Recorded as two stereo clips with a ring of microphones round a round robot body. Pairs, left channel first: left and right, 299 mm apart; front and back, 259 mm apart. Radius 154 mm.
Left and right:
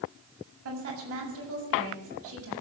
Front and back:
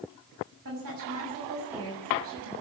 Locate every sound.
0.7 s a woman speaking: 135° right, 6.5 m